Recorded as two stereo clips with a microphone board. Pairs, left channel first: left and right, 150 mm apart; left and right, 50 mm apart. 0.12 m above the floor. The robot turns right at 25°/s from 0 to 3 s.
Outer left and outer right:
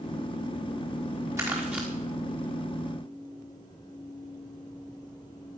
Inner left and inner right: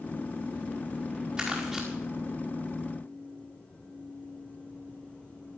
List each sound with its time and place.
1.4 s crumpling: 20° right (ahead or behind), 4.5 m; by 1.9 s 5° right (ahead or behind), 4.5 m